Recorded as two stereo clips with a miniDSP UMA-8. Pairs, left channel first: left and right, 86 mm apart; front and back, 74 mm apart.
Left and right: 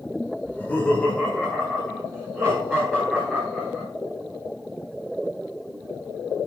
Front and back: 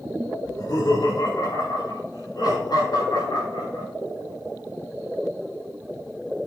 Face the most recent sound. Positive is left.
turn(degrees=5)